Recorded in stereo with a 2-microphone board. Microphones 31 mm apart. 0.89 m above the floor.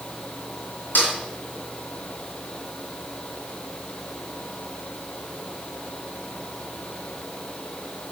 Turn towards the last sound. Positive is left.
turn(degrees=75)  # may be behind; listen again after turning